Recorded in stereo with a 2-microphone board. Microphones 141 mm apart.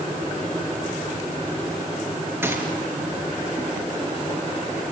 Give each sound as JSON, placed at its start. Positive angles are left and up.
{"t": 2.4, "sound": "a gunshot", "side_deg": -15, "distance_m": 3.5}